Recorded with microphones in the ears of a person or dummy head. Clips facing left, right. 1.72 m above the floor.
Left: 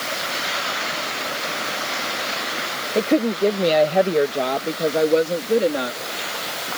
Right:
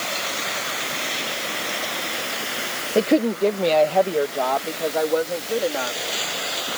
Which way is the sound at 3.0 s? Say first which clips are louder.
Even; 10° right (ahead or behind).